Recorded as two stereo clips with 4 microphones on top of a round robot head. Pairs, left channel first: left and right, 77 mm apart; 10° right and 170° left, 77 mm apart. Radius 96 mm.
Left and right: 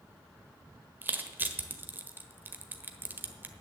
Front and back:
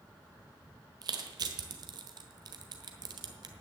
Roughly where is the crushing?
Behind right.